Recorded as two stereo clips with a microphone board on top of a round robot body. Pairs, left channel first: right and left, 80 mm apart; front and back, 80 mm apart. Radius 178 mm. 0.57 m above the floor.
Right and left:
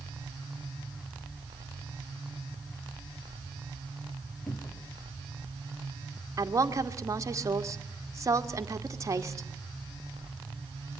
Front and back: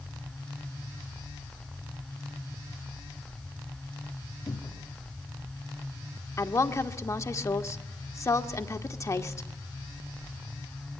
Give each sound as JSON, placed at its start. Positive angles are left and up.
{"t": 4.5, "sound": "a cupboard door", "azimuth_deg": -30, "distance_m": 2.0}
{"t": 6.4, "sound": "a woman speaking", "azimuth_deg": 45, "distance_m": 2.0}